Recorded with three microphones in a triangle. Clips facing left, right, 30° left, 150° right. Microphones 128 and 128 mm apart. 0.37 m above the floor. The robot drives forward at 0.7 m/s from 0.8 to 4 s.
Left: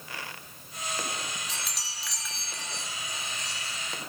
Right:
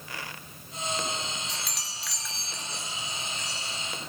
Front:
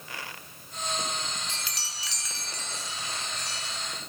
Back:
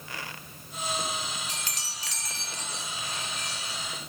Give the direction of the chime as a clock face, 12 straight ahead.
6 o'clock.